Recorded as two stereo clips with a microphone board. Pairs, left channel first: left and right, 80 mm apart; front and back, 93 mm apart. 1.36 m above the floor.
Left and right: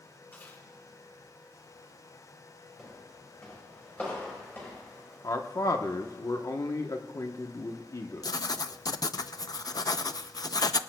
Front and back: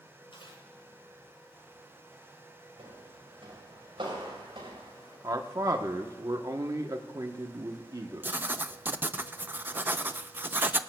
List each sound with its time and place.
0.3 s chewing: 25° left, 9.5 m
2.8 s footsteps: 175° left, 7 m; by 5.1 s 150° left, 7.5 m
5.2 s a man speaking: 130° left, 1.0 m
8.2 s writing: 115° left, 0.5 m